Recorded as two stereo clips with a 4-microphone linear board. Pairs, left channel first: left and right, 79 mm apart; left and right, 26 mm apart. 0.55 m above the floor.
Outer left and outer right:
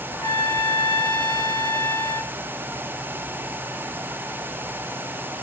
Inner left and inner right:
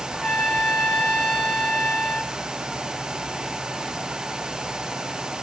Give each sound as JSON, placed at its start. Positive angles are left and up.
{"t": 0.1, "sound": "a trumpet", "side_deg": 50, "distance_m": 6.0}